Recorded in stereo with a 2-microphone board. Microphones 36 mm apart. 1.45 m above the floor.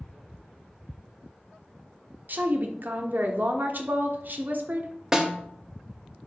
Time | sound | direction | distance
2.3 | a woman speaking | 50° right (ahead or behind) | 0.7 m
5.1 | a snare drum | 10° right (ahead or behind) | 0.8 m